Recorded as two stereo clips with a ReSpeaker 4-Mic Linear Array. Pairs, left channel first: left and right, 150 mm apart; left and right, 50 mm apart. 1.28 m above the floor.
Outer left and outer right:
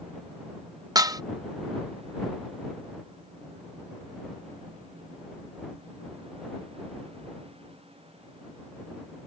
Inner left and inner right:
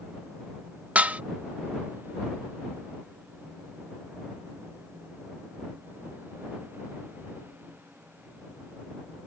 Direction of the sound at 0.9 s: 25° right (ahead or behind).